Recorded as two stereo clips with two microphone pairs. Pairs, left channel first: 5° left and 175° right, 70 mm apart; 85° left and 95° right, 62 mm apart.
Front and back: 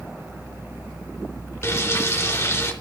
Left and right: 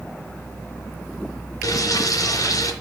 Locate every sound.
1.6 s frying: 55° left, 3.5 m